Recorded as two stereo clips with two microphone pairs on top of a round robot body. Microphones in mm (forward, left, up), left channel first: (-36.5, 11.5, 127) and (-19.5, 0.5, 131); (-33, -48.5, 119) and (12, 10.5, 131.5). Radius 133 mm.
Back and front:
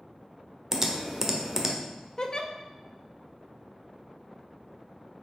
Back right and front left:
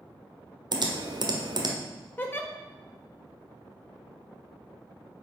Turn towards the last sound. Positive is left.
turn(degrees=180)